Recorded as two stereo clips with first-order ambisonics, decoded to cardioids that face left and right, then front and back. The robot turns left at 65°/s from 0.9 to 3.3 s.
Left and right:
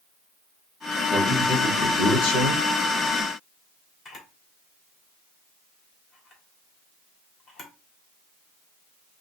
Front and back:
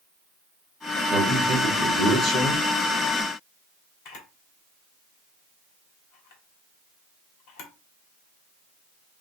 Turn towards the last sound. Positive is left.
turn(degrees=25)